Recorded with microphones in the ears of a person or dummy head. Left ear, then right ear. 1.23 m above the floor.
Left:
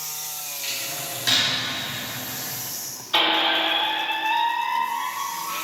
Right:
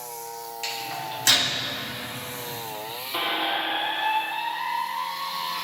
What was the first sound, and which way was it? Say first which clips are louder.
A microwave: even; 25° right (ahead or behind).